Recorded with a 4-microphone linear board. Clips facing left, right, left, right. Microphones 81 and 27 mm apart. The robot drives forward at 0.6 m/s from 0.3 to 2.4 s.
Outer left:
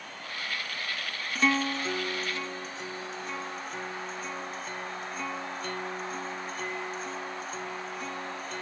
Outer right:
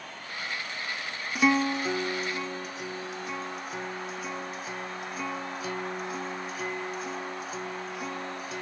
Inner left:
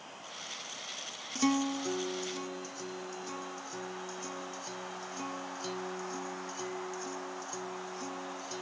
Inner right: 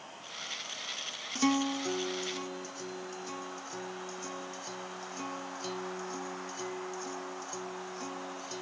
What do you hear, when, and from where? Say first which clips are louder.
1.4 s a guitar: outer right 3 dB, inner right 1 dB; 10° right (ahead or behind); by 8.6 s 5° right (ahead or behind)